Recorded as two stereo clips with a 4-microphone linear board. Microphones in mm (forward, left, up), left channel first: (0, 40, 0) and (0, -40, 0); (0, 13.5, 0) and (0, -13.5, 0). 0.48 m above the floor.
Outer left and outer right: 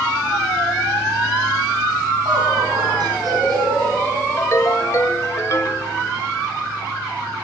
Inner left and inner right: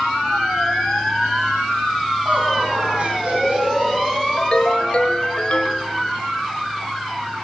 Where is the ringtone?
40° left (ahead or behind), 0.8 m.